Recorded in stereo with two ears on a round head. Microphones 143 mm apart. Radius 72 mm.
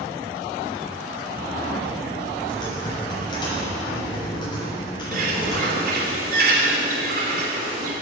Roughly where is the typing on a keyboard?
Left.